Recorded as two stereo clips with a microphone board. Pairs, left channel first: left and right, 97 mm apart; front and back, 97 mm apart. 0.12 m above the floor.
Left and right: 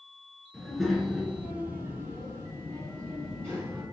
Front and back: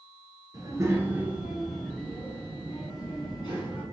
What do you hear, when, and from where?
0.5 s a child speaking: 175° left, 1.3 m; by 3.8 s 35° right, 2 m